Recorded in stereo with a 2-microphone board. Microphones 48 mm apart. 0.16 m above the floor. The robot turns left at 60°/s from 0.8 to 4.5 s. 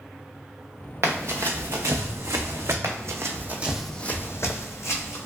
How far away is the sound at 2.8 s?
About 0.7 m.